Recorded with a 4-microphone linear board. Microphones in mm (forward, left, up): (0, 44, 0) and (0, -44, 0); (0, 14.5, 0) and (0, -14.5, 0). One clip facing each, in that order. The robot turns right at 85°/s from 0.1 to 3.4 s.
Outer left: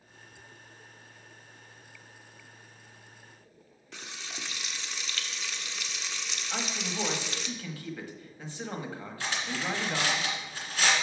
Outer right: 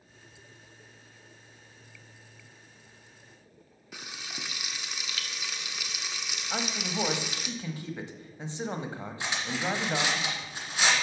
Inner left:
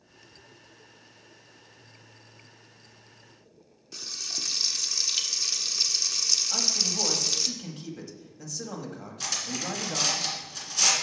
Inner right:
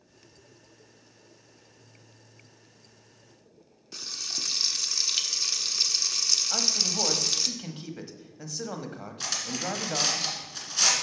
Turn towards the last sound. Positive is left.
turn(degrees=-15)  # may be behind; listen again after turning